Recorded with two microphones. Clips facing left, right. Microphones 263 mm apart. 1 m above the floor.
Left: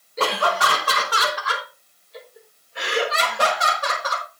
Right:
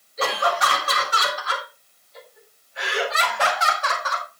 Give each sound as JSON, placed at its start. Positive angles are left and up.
{"t": 0.2, "sound": "laughter", "side_deg": 80, "distance_m": 4.5}